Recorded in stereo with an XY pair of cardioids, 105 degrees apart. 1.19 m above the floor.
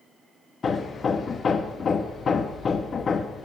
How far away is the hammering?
About 1.2 m.